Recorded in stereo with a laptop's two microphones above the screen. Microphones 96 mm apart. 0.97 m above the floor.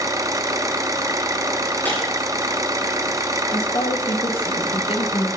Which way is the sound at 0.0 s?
35° right (ahead or behind).